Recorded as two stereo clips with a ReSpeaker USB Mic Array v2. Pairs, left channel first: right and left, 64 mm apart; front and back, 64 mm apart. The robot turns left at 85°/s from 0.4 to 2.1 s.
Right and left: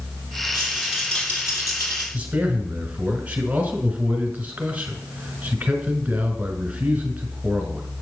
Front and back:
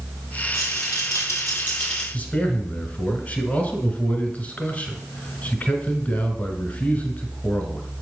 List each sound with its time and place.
0.5 s a rattle: 40° left, 4 m; by 2.0 s 90° right, 4 m
2.1 s a man speaking: 40° left, 1.7 m